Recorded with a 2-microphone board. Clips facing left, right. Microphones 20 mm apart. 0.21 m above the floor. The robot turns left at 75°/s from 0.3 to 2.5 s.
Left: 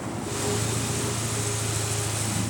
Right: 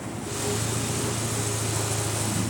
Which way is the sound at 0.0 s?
30° left.